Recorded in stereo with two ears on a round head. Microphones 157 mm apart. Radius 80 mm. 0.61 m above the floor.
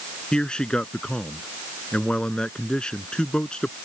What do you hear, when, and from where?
0.3 s a man speaking: 5° left (ahead or behind)